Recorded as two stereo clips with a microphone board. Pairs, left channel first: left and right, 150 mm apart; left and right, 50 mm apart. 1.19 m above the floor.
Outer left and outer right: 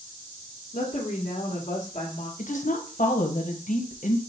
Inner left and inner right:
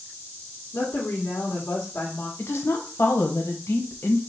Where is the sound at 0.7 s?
50° left (ahead or behind), 1.4 m.